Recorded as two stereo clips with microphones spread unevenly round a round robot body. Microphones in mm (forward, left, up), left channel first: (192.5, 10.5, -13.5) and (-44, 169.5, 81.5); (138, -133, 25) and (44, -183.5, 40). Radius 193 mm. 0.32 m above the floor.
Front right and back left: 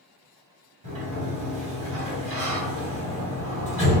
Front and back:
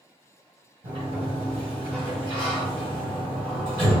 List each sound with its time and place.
0.8 s a sliding door: 165° right, 1.9 m